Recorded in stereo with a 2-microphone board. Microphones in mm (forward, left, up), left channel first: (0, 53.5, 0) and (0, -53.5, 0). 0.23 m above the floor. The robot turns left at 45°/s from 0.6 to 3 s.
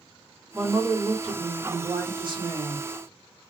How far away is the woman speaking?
About 2 m.